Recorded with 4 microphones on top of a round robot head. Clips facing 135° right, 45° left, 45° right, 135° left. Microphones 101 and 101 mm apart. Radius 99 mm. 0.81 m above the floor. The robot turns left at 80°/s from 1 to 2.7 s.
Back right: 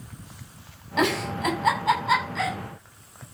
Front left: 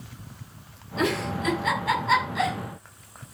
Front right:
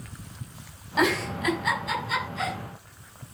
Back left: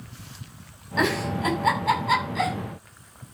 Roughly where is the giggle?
Behind right.